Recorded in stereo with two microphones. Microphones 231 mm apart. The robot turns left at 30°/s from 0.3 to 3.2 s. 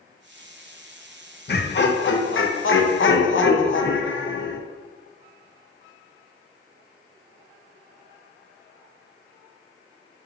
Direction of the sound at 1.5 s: 125° left.